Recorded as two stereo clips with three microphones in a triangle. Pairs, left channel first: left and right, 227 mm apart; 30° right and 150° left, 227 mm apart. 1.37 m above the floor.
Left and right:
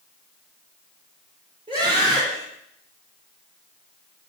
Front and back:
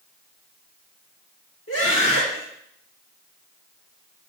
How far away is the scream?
About 5 m.